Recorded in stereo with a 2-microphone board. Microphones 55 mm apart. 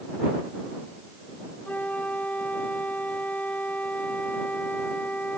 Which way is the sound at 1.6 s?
30° left (ahead or behind).